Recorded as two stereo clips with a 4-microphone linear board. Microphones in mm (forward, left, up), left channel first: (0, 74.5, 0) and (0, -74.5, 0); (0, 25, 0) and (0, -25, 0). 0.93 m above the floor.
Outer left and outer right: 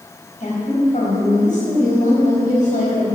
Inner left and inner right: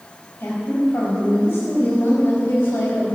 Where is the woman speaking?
55° left (ahead or behind), 4 m.